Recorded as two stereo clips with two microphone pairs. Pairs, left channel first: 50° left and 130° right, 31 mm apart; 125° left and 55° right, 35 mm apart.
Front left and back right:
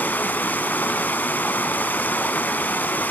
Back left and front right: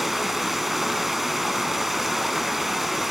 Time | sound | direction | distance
0.0 | running water | 35° left | 0.8 m